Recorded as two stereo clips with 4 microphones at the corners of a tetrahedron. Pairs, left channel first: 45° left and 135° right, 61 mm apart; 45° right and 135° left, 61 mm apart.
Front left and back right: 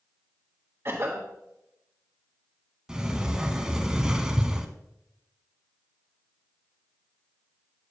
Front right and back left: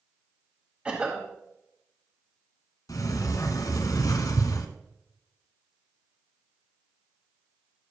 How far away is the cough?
About 1.4 m.